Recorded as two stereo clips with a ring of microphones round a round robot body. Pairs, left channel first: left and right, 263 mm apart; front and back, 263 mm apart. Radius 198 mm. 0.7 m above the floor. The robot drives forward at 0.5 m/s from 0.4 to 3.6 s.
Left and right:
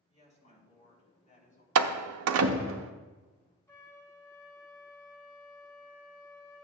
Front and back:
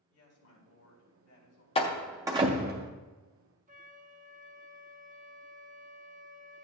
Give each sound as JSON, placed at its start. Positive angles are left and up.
{"t": 0.1, "sound": "a woman speaking", "azimuth_deg": 25, "distance_m": 4.5}
{"t": 1.8, "sound": "a door slam", "azimuth_deg": -70, "distance_m": 0.5}
{"t": 3.7, "sound": "a flute", "azimuth_deg": 165, "distance_m": 1.0}